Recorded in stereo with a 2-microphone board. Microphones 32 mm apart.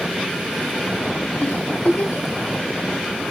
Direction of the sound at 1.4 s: 85° left.